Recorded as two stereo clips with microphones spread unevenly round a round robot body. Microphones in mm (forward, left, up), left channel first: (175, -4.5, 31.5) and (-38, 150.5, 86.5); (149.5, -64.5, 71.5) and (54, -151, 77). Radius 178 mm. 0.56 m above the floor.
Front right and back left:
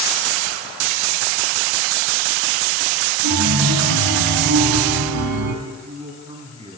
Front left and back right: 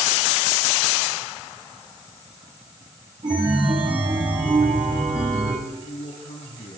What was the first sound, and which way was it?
A chime, 155° left.